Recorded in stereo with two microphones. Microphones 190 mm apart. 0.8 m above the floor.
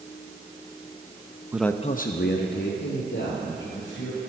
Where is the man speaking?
10° right (ahead or behind), 0.5 m; by 4.2 s 75° left (ahead or behind), 3.5 m.